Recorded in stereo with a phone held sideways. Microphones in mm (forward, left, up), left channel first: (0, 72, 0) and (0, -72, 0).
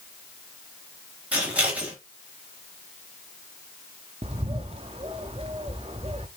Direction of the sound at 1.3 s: 10° right (ahead or behind).